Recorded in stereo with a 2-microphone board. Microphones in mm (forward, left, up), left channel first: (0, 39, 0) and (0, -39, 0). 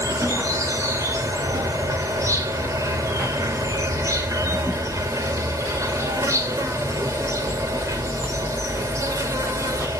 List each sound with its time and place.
0.0 s an insect: 45° right (ahead or behind), 2.5 m